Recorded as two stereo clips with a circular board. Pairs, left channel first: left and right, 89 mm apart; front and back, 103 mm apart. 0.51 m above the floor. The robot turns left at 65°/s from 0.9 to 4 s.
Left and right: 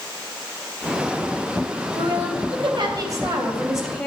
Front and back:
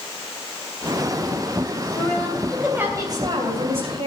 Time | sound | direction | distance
1.9 | a woman speaking | 55° right | 3 m